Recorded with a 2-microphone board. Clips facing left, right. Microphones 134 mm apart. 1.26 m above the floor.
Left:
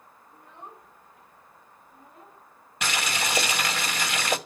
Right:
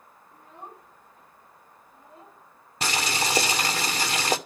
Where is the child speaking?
50° right (ahead or behind), 7.5 m; by 2.4 s 35° right (ahead or behind), 5 m.